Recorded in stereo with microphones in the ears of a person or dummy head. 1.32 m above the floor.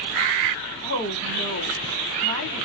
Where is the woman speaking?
80° right, 1.6 m.